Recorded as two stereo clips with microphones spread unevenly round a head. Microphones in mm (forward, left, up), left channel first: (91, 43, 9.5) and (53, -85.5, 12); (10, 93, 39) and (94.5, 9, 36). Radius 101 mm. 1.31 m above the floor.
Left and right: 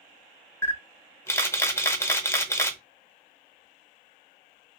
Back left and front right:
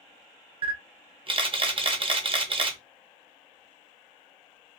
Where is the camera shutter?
Straight ahead, 0.7 m.